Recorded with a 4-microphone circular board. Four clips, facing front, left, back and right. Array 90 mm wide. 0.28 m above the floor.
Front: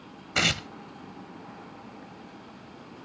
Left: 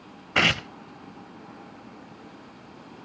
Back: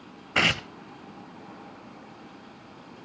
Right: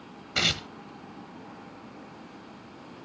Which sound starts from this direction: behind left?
Tearing paper, at 0.3 s.